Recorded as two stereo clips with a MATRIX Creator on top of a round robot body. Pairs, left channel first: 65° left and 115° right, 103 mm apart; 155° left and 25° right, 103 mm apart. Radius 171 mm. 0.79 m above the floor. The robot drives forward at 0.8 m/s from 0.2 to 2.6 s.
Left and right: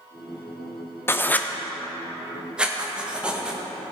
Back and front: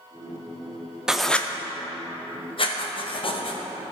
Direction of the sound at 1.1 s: 50° left.